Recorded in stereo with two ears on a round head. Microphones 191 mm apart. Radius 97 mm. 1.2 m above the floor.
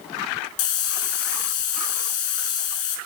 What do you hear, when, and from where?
0.6 s a hiss: 80° left, 5 m